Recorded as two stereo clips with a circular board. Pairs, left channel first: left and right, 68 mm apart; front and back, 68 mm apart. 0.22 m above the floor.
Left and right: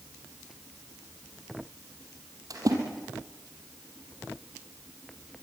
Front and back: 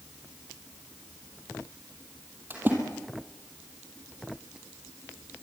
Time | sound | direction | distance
2.5 | a splash | 120° right | 5 m